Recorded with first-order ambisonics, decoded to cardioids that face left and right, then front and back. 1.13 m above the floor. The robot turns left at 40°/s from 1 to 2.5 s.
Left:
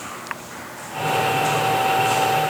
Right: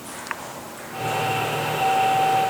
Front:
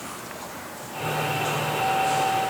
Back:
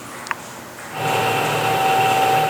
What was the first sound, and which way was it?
Only background noise.